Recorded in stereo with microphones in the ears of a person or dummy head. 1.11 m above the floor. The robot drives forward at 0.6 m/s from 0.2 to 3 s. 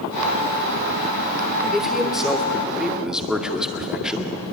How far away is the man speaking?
About 3 m.